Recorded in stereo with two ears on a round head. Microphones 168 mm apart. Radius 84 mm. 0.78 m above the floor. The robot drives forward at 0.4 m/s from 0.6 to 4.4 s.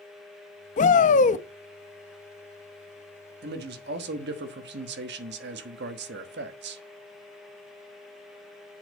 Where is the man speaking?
55° right (ahead or behind), 1.2 m; by 6.8 s 60° right (ahead or behind), 1.1 m.